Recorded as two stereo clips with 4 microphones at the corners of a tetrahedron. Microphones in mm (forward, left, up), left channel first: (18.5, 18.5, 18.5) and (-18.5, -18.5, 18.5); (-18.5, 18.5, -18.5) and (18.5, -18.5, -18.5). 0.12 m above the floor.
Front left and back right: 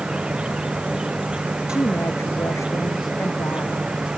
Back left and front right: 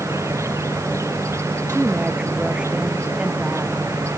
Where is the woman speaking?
25° left.